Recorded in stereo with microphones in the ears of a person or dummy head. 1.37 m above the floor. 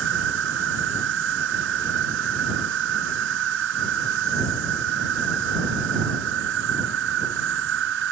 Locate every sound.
0.0 s an insect: 60° right (ahead or behind)